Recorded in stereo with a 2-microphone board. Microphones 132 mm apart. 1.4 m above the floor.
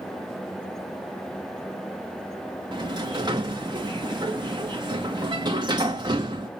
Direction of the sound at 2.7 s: 35° right (ahead or behind).